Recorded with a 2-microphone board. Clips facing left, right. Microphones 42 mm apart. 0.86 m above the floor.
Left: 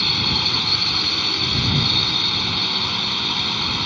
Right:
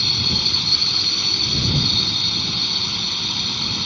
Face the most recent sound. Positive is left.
turn(degrees=30)  # may be behind; listen again after turning